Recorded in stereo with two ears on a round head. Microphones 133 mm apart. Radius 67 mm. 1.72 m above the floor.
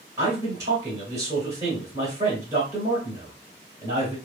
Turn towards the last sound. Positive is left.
turn(degrees=-30)  # may be behind; listen again after turning